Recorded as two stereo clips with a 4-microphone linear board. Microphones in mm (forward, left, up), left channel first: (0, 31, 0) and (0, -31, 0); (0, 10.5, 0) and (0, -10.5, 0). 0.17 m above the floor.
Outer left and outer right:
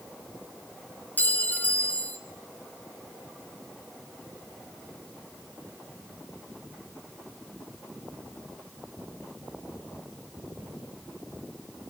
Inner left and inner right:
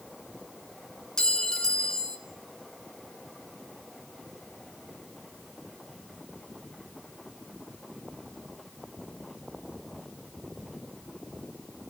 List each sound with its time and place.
1.2 s a clink: 30° left (ahead or behind), 1.9 m